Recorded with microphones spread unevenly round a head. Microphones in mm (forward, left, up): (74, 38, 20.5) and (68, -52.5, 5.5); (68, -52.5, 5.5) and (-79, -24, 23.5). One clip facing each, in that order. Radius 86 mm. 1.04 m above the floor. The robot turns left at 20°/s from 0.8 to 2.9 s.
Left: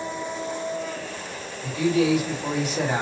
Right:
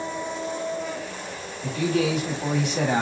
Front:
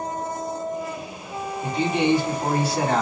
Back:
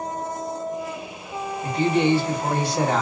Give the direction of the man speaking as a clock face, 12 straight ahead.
2 o'clock.